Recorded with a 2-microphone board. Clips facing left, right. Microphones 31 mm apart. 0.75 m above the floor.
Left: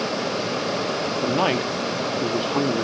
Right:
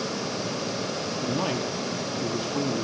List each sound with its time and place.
1.2 s a man speaking: 35° left (ahead or behind), 1.1 m